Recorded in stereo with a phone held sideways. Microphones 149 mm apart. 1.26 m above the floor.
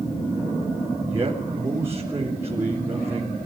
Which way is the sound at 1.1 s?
20° right (ahead or behind).